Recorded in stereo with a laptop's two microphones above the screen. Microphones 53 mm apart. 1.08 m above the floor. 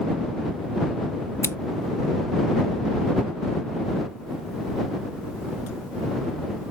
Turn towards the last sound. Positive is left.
turn(degrees=70)  # may be behind; listen again after turning